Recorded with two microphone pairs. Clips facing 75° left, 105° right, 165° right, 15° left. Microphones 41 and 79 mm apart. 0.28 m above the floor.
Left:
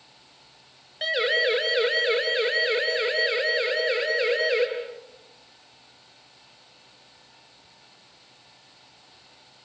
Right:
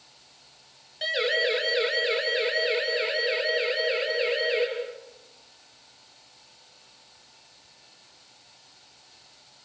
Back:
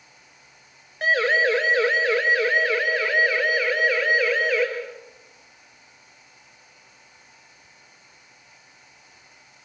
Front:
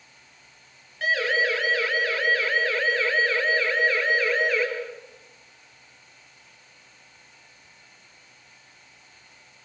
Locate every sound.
1.0 s a siren: 140° left, 4.5 m; by 4.7 s 105° left, 6 m